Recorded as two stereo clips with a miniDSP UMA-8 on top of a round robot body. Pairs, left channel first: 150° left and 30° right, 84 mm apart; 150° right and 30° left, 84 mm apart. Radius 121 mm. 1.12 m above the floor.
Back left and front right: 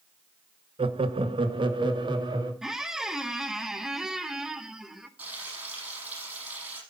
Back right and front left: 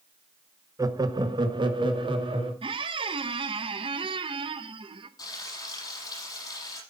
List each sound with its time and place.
0.8 s laughter: 20° right, 1.0 m; by 2.5 s 5° left, 2.5 m
2.6 s a squeak: 55° left, 0.9 m
5.2 s frying: 105° right, 6 m